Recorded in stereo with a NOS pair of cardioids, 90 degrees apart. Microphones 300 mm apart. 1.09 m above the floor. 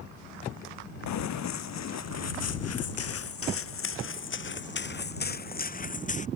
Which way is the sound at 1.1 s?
70° left.